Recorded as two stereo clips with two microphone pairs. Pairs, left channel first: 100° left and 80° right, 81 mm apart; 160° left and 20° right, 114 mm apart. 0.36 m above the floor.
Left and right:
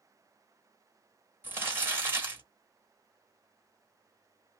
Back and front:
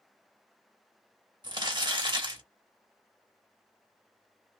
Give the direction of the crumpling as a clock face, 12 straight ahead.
1 o'clock.